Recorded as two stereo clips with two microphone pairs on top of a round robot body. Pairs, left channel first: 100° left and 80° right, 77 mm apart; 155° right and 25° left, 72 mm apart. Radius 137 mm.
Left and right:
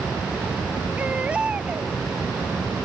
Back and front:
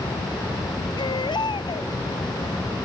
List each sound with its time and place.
1.0 s a baby crying: 155° right